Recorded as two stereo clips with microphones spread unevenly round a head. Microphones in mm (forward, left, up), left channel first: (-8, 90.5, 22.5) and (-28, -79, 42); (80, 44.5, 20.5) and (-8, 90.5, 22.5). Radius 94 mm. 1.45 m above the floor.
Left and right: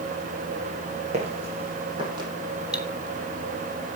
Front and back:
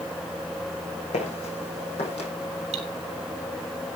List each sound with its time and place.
1.1 s footsteps: 45° right, 5.5 m; by 2.3 s 35° right, 4 m
2.7 s cutlery clinking: straight behind, 3 m